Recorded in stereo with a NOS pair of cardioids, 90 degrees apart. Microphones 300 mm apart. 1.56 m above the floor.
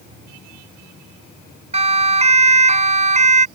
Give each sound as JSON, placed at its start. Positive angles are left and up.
{"t": 1.7, "sound": "a siren", "azimuth_deg": -20}